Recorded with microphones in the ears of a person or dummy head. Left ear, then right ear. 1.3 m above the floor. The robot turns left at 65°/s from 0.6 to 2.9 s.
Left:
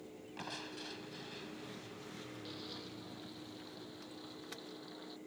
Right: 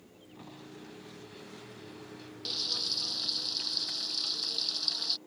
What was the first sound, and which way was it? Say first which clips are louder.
Crushing: left 4 dB; 65° left.